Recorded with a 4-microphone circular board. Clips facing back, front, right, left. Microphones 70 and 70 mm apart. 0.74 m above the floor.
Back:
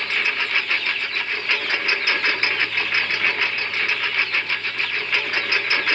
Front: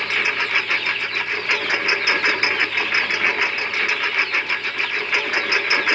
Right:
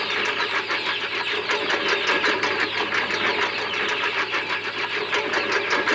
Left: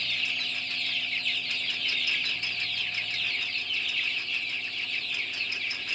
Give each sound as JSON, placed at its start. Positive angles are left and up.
{"t": 0.0, "sound": "a lawn mower", "azimuth_deg": -75}